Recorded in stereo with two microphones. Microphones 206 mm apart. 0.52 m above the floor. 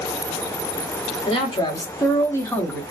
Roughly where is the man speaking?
Left.